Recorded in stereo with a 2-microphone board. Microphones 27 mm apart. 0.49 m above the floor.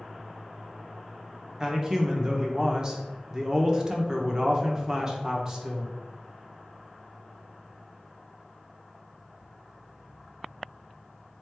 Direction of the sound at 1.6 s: 25° right (ahead or behind).